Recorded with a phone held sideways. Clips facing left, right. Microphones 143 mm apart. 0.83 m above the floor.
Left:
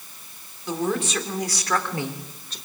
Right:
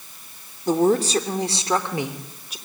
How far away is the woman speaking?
About 2.5 m.